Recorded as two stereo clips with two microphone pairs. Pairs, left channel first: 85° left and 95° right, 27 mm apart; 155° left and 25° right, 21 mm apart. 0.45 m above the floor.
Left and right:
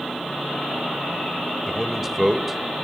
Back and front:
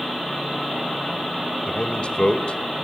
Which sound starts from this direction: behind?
A man speaking, at 1.7 s.